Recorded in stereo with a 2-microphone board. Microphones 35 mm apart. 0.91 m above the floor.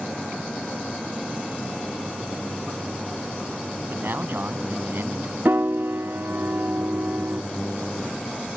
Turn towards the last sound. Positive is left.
turn(degrees=-80)